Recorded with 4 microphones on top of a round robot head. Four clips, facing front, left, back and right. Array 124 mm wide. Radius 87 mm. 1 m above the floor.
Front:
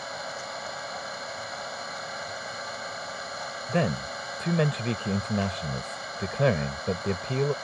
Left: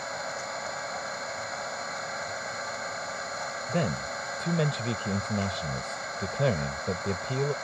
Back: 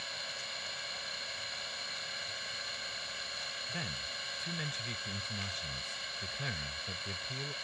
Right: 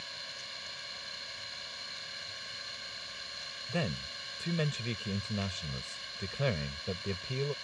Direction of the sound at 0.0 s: 55° left.